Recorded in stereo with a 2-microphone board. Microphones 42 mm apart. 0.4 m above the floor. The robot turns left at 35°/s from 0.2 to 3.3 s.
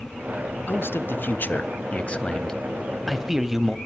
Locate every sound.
0.7 s a man speaking: 80° left, 1.9 m; by 3.8 s 10° right, 1.9 m